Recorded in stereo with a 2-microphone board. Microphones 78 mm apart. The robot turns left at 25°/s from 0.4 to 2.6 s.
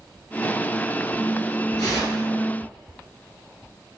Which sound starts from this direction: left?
Tearing paper, at 1.8 s.